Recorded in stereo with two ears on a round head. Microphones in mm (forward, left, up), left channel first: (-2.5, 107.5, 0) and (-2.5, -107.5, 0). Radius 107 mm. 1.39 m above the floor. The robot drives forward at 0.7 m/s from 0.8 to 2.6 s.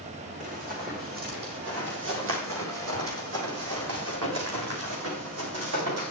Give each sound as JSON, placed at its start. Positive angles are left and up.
{"t": 0.4, "sound": "running footsteps", "side_deg": -35, "distance_m": 4.0}